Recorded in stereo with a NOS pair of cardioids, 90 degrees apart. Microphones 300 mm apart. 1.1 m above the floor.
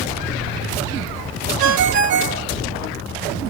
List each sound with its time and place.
1.6 s a ringtone: 70° right, 0.9 m